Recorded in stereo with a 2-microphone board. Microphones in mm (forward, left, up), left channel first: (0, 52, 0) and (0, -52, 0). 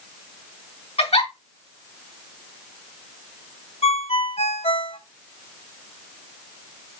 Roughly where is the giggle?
Left.